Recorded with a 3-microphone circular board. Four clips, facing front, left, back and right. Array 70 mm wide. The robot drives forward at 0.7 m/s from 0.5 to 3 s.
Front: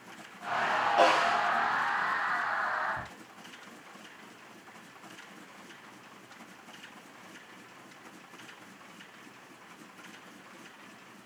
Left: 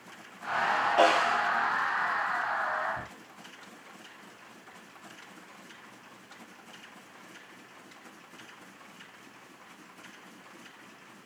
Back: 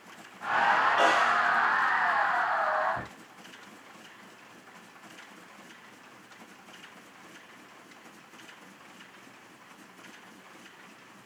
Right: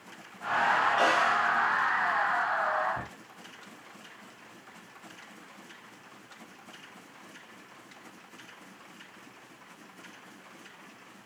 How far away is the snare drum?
About 8.5 m.